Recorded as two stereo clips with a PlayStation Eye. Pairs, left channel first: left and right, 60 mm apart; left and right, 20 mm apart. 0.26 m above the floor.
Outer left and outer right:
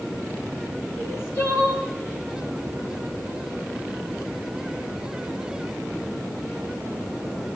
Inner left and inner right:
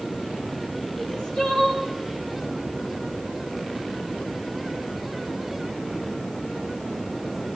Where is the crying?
45° left (ahead or behind), 4.5 m.